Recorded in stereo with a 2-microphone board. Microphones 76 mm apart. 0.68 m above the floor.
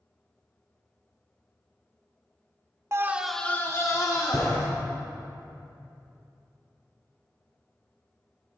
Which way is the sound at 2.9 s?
35° right (ahead or behind).